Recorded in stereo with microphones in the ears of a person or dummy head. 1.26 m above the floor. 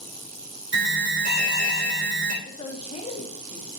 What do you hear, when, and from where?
0.7 s an alarm: 75° right (ahead or behind), 3.5 m
2.4 s a woman speaking: 35° left (ahead or behind), 1.9 m